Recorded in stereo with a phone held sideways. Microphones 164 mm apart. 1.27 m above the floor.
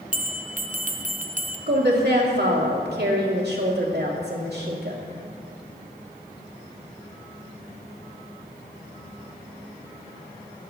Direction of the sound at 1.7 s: 85° right.